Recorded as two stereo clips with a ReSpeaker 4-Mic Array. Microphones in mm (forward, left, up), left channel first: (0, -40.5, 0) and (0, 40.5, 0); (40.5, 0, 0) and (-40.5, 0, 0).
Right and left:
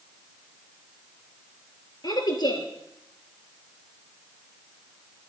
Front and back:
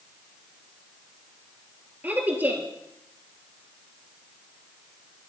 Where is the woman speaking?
115° right, 2.5 m.